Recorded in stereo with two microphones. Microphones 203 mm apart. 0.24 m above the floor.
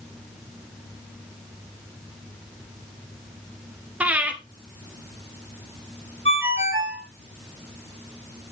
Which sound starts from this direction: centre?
Breathing, at 4.0 s.